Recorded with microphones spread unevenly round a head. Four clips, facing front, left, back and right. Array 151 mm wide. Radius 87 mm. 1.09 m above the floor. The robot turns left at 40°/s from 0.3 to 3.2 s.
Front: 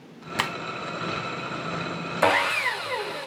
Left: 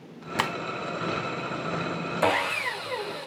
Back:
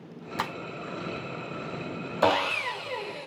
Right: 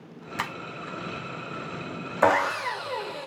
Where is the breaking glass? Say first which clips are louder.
Left 5 dB, front 3 dB; 115° left, 0.9 m; by 0.5 s 110° left, 0.9 m.